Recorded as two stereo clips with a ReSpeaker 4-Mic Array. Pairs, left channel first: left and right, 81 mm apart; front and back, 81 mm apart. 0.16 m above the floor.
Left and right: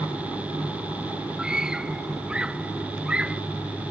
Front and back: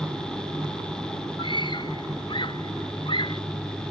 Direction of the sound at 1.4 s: 10° right.